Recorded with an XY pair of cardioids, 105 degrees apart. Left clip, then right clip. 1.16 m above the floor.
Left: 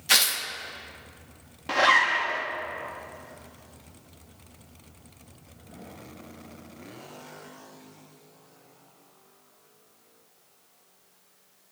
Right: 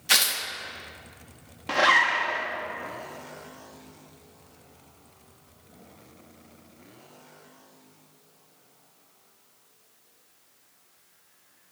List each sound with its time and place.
0.1 s tearing paper: 5° left, 1.1 m
1.7 s a zipper: straight ahead, 1.0 m